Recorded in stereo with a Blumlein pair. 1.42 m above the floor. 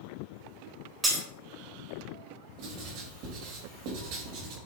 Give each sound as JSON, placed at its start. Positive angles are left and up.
{"t": 1.0, "sound": "breaking glass", "azimuth_deg": -15, "distance_m": 3.0}
{"t": 2.6, "sound": "writing", "azimuth_deg": -40, "distance_m": 3.0}